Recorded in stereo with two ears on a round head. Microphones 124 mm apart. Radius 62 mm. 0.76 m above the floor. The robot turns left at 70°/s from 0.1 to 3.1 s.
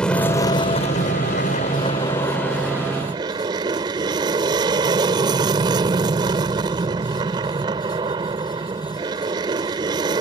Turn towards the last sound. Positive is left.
turn(degrees=-40)